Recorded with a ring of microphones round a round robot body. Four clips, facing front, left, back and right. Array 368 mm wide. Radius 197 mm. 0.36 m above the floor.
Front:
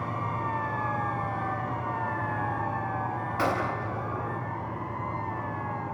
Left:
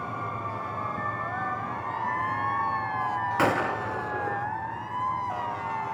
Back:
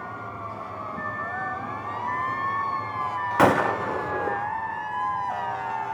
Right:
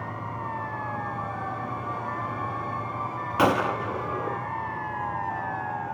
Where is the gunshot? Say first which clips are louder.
Right 5 dB, back 9 dB; 165° right, 1.5 m.